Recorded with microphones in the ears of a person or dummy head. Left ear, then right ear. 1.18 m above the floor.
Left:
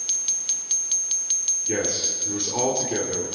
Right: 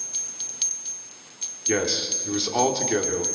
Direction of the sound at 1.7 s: 45° right (ahead or behind).